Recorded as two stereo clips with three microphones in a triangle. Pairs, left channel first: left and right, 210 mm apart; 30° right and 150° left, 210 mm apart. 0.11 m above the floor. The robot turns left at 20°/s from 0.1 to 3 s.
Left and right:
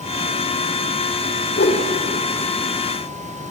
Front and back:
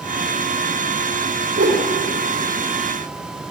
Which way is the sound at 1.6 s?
125° left.